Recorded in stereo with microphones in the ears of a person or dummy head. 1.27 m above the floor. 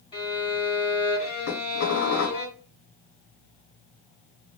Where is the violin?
25° left (ahead or behind), 1.1 m.